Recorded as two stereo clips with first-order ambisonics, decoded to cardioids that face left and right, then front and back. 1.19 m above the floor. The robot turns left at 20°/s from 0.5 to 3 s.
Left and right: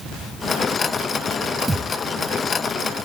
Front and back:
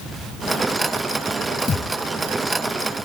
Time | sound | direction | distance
1.7 | a thud | 15° right | 1.1 m